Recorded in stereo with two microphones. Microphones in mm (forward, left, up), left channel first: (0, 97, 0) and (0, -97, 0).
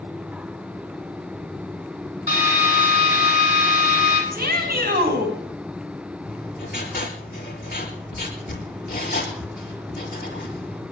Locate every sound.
2.3 s a drill: 45° left (ahead or behind), 6 m
4.3 s a shout: 50° right (ahead or behind), 4.5 m
6.2 s writing: 50° left (ahead or behind), 5.5 m